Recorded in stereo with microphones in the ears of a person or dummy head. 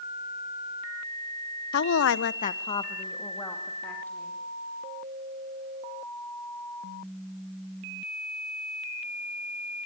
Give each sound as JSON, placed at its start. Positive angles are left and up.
{"t": 1.7, "sound": "a woman speaking", "side_deg": 50, "distance_m": 0.8}